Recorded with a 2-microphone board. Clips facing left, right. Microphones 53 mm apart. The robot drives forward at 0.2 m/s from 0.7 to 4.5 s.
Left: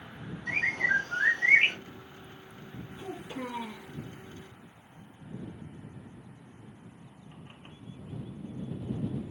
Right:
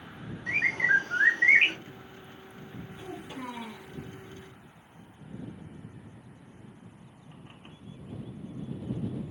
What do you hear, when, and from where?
0.5 s a bird: 40° right (ahead or behind), 1.0 m
3.0 s a child speaking: 20° left (ahead or behind), 1.3 m